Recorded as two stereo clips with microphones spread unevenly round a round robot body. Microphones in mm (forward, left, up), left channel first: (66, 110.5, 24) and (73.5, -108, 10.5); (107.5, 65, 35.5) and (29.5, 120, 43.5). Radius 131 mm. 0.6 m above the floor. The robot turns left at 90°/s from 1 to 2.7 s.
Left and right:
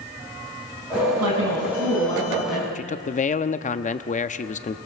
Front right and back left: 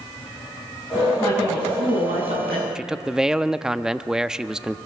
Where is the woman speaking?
110° right, 5.5 m; by 2.6 s 115° left, 5.5 m.